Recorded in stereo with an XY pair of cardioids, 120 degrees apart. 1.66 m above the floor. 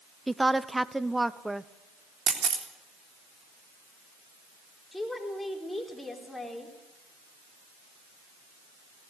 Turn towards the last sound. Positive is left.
turn(degrees=10)